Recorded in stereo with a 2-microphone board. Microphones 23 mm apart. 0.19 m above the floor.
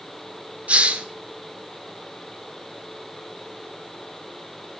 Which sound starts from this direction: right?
A hiss, at 0.7 s.